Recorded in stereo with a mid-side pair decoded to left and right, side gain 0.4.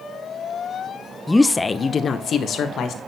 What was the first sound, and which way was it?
A woman speaking, 5° left.